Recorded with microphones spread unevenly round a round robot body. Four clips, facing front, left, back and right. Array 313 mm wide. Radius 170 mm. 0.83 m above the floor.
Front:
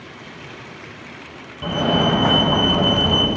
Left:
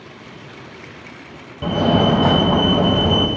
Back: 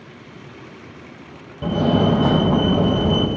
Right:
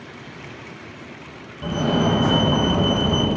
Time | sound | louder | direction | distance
1.6 | a fire alarm | left 4 dB, back 1 dB | 140° left | 1.5 m